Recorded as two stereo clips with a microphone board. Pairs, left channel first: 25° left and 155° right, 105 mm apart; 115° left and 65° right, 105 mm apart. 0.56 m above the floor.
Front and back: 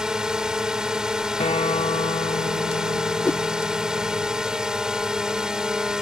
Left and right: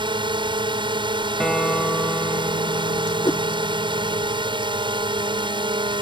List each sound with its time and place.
0.0 s a drone: 75° right
1.4 s a guitar: 25° left
3.2 s a whoosh: 90° left